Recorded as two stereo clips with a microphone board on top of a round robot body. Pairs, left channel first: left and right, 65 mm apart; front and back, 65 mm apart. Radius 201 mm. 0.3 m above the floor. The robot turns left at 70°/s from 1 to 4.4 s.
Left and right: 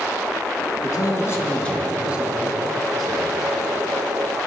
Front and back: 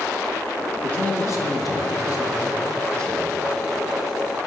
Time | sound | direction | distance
0.8 | a man speaking | 65° left | 5 m